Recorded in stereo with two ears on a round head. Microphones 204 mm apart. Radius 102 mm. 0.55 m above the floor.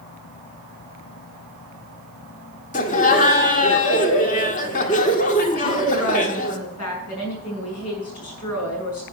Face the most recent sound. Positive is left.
turn(degrees=75)  # may be behind; listen again after turning